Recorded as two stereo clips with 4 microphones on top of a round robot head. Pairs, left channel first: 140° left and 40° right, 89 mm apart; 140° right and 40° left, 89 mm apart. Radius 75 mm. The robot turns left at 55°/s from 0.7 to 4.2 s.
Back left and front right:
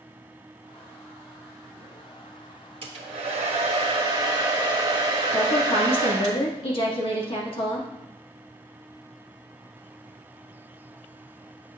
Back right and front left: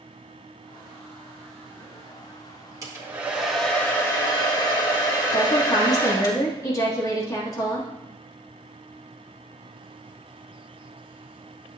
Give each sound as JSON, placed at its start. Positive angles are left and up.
{"t": 2.8, "sound": "a hair dryer", "azimuth_deg": -15, "distance_m": 1.7}
{"t": 5.3, "sound": "a woman speaking", "azimuth_deg": 165, "distance_m": 2.0}